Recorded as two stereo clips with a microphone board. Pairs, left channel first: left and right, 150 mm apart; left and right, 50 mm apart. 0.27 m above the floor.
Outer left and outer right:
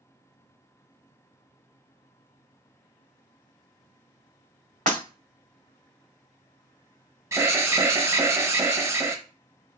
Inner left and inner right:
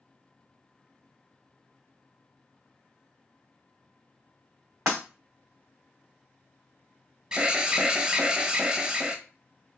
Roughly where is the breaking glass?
Right.